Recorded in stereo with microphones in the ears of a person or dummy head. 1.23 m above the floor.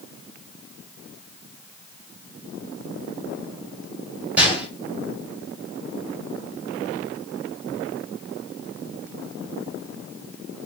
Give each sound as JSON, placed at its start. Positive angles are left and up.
{"t": 4.4, "sound": "a gunshot", "side_deg": -10, "distance_m": 2.5}